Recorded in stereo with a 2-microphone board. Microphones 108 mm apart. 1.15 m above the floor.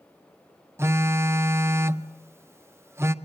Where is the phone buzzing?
25° right (ahead or behind), 0.6 m.